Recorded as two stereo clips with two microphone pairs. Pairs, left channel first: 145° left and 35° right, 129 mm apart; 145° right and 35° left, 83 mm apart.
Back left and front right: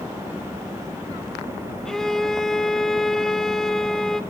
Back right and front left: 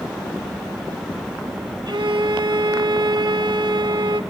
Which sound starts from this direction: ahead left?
A violin, at 1.9 s.